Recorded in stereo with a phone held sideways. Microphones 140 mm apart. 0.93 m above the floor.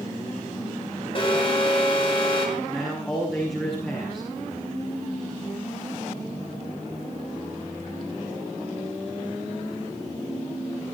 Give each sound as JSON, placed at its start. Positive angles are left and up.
{"t": 1.1, "sound": "an alarm", "side_deg": 40, "distance_m": 5.0}
{"t": 2.6, "sound": "a man speaking", "side_deg": 5, "distance_m": 7.0}